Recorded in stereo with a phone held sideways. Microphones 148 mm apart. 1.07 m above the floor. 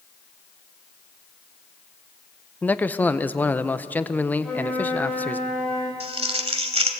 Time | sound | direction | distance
2.6 | a man speaking | 10° left (ahead or behind) | 0.6 m
4.4 | a flute | 10° left (ahead or behind) | 7 m
6.0 | crumpling | 45° right (ahead or behind) | 1.5 m